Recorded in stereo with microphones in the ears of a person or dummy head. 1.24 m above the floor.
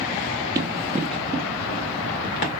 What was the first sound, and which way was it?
Running footsteps, 15° right (ahead or behind).